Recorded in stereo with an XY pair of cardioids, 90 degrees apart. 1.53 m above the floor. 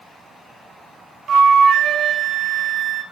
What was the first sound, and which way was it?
A flute, 65° right.